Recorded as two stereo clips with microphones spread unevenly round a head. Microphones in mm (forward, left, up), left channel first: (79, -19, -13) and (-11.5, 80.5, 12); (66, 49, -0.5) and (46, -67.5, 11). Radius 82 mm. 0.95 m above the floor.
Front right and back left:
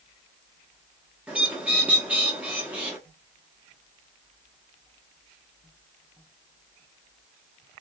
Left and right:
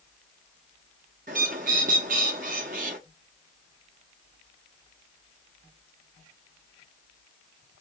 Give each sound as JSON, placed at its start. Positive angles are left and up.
{"t": 1.3, "sound": "a bird", "azimuth_deg": -145, "distance_m": 1.0}